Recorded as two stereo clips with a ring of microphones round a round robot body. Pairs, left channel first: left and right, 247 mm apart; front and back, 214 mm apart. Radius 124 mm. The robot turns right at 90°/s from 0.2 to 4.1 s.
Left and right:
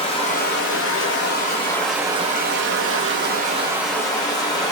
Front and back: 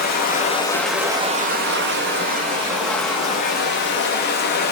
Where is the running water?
30° left, 0.9 m; by 4.7 s 20° left, 0.9 m.